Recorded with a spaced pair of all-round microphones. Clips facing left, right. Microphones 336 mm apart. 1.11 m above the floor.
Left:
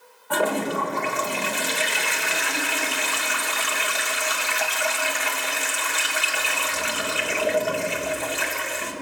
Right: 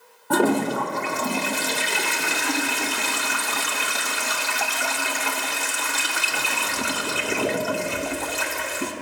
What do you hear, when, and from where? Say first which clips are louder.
0.3 s a toilet flushing: right 5 dB; 55° right (ahead or behind), 1.4 m